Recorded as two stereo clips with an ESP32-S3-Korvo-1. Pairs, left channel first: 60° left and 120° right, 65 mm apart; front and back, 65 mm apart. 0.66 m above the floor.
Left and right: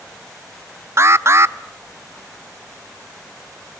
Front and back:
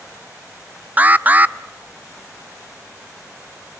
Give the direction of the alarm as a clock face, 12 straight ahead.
4 o'clock.